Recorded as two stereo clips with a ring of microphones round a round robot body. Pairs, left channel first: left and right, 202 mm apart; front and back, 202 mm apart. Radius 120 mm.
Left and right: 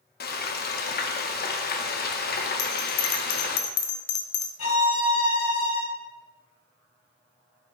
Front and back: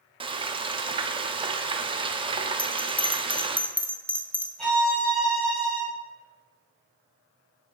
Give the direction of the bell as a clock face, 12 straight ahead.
9 o'clock.